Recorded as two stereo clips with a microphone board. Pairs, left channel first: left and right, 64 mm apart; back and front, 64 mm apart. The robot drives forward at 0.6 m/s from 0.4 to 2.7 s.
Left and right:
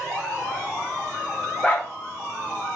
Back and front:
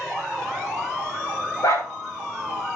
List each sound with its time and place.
1.6 s a dog barking: 165° left, 4 m